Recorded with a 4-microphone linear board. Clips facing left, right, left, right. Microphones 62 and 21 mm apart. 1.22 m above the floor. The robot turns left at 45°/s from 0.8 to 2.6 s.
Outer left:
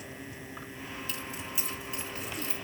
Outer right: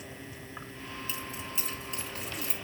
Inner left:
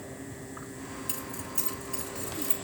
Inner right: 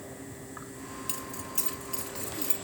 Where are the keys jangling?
15° right (ahead or behind), 2.5 m; by 2.5 s 80° right, 2.5 m.